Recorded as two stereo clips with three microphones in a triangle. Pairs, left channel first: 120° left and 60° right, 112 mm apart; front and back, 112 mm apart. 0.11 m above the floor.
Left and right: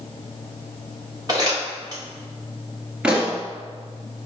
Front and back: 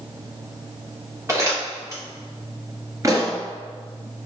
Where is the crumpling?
115° right, 2.5 m.